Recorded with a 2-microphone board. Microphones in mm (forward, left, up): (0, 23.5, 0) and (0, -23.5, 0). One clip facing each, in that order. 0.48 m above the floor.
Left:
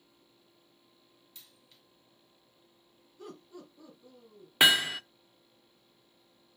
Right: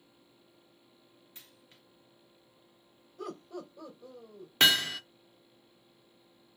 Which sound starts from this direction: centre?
Hammering, at 4.6 s.